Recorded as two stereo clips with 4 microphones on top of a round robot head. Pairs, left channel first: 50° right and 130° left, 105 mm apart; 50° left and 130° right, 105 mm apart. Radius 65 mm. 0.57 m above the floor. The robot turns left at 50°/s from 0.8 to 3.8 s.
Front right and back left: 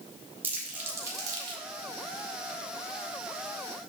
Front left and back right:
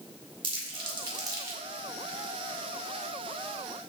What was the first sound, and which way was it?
Crumpling, 160° right.